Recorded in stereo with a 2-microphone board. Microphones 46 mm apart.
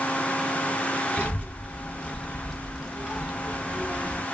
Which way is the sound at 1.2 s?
35° left (ahead or behind).